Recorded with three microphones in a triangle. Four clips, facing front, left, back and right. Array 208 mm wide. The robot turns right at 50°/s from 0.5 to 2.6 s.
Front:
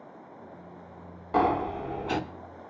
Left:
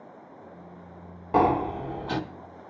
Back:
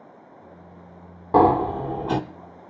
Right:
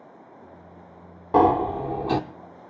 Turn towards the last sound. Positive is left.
turn(degrees=-105)